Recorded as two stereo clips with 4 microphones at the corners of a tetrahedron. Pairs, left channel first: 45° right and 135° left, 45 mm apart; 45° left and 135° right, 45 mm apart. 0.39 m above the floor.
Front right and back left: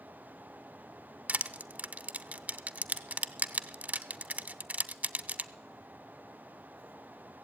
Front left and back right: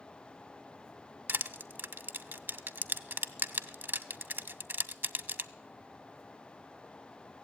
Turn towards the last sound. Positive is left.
turn(degrees=-175)